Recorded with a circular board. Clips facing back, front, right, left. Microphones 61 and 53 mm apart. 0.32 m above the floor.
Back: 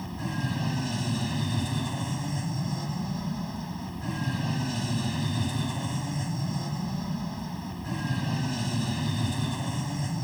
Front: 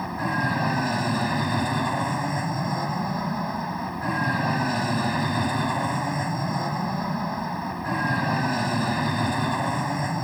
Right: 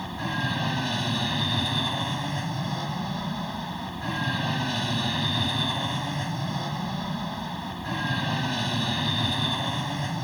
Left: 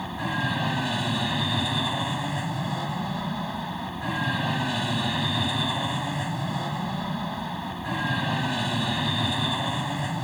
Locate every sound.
0.0 s an aircraft: 5° left